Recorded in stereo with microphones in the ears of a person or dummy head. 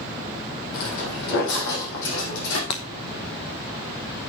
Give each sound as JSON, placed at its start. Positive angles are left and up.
{"t": 0.7, "sound": "footsteps", "side_deg": 55, "distance_m": 3.0}
{"t": 2.7, "sound": "breaking glass", "side_deg": 20, "distance_m": 0.8}